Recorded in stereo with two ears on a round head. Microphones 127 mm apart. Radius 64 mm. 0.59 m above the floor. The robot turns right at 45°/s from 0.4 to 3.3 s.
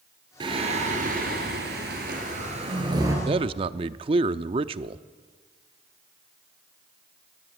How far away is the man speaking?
About 0.7 m.